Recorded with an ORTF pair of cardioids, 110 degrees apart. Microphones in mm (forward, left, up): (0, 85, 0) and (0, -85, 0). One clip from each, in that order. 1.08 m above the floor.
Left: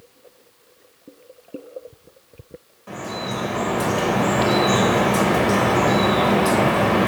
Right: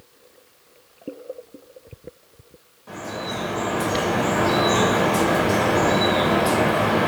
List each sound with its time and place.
2.9 s dripping: 25° left, 1.0 m